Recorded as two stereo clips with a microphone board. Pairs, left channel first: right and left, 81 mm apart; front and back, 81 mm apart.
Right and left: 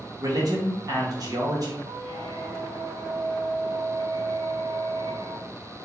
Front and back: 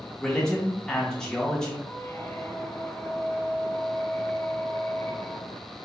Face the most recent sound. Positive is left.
turn(degrees=70)